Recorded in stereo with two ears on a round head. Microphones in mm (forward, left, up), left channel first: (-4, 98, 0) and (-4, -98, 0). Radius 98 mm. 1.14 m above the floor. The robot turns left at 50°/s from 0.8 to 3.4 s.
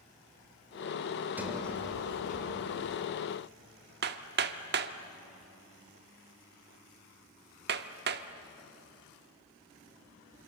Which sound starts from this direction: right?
Hammering, at 4.0 s.